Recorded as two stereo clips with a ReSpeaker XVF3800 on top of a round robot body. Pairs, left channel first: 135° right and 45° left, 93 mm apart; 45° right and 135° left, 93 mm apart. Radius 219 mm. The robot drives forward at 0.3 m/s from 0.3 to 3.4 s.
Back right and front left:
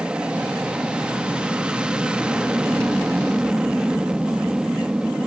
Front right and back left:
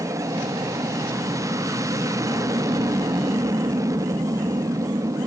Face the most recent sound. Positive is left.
turn(degrees=120)